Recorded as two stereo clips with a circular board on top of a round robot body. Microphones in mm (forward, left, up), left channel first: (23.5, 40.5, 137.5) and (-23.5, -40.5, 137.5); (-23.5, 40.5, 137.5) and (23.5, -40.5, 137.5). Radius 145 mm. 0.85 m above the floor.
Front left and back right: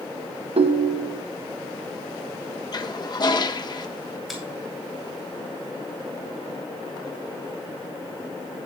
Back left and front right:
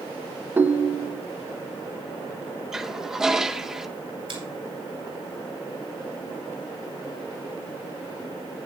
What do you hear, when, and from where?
0.6 s a ringtone: 130° right, 0.8 m
2.7 s a toilet flushing: 25° left, 1.1 m
4.3 s a finger snap: 35° right, 9 m